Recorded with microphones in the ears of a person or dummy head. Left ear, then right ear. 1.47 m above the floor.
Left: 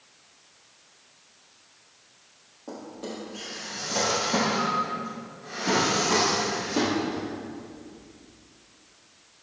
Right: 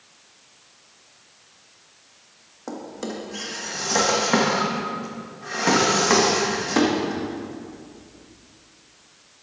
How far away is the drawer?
About 1.2 m.